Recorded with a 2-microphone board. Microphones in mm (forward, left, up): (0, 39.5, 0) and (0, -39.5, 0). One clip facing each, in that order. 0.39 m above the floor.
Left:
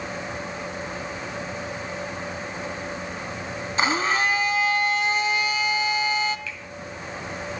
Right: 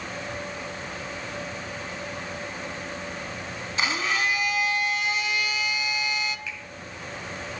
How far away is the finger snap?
About 1.9 m.